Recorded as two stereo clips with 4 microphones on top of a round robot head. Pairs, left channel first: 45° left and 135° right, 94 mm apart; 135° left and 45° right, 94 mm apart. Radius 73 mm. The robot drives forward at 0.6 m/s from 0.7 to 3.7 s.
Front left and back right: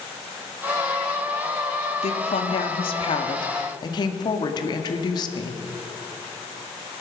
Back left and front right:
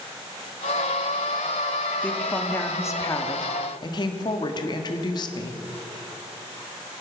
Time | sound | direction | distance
2.0 | a woman speaking | 60° left | 1.9 m